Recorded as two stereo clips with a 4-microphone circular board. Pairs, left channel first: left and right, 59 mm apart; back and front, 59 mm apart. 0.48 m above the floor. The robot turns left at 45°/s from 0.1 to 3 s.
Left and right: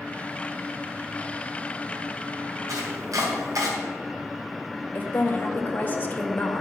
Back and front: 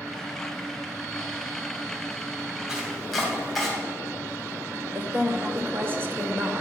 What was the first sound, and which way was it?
Chopping, 75° right.